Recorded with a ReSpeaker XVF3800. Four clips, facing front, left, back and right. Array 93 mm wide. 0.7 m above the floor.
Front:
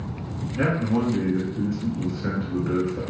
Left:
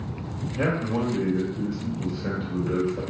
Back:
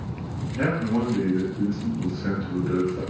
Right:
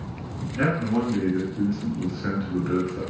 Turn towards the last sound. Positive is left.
turn(degrees=-65)